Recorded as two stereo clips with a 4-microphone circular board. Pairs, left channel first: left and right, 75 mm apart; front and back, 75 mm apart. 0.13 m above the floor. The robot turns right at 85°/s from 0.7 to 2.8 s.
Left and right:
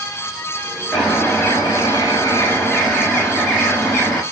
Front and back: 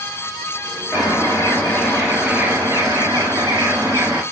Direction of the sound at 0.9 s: 10° right.